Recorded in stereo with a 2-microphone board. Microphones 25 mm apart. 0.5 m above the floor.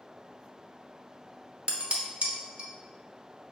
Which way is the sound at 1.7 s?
55° right (ahead or behind).